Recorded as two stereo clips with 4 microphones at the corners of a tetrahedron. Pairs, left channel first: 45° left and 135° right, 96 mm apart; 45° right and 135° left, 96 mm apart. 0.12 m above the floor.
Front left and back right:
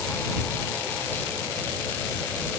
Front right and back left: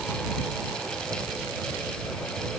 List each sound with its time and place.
Only background noise.